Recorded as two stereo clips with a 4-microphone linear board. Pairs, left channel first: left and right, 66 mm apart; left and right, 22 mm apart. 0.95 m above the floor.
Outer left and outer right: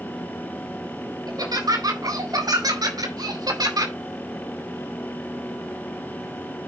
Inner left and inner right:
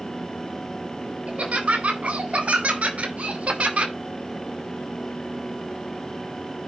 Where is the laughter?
80° right, 3.5 m.